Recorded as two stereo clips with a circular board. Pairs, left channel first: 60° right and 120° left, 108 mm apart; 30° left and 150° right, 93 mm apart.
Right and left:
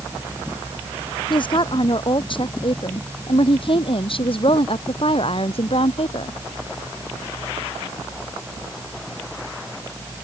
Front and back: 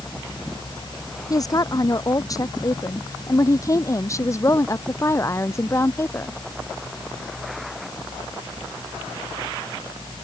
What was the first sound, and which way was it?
A woman speaking, 20° right.